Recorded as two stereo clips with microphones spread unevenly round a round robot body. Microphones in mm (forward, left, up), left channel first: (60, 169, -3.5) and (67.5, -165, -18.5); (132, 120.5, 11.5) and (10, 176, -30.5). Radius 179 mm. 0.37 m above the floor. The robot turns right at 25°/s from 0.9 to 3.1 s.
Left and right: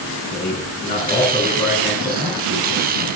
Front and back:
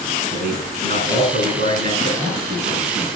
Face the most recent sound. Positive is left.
turn(degrees=-140)